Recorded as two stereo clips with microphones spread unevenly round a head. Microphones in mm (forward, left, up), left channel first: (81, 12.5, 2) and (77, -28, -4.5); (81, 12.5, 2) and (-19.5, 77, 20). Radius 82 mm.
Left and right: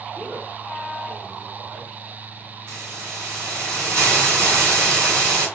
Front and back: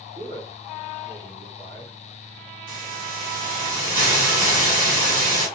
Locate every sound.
0.1 s a man speaking: 165° right, 3 m
2.7 s a hiss: 160° right, 3 m